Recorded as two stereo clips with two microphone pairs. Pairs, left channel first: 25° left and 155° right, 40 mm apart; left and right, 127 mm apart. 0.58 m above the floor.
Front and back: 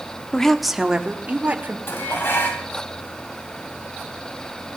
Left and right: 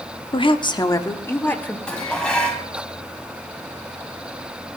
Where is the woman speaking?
85° left, 0.9 m; by 1.8 s 165° left, 1.7 m.